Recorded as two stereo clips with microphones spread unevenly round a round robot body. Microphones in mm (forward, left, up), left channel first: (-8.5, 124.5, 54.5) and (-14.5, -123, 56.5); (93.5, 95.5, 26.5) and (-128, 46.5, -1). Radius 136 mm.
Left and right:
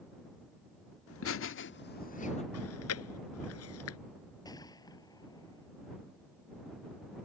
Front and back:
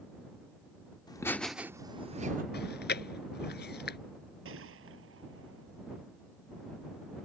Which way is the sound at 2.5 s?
55° left.